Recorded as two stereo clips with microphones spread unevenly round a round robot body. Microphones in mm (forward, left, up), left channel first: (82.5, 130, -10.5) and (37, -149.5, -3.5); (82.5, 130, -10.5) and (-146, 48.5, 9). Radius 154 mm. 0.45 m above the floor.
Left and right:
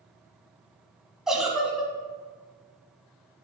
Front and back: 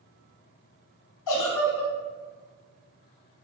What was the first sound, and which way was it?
A giggle, 10° right.